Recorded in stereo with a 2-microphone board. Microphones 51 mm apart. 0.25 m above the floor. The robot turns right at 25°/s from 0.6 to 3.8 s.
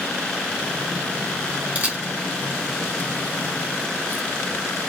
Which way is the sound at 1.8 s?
30° right (ahead or behind).